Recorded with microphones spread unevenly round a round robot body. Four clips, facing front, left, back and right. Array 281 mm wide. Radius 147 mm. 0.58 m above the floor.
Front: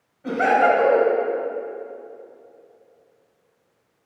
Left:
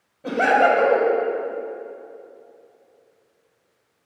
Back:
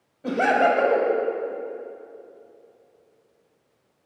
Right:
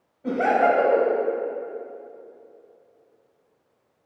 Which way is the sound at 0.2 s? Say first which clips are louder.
Left 2 dB, front 2 dB; 120° left.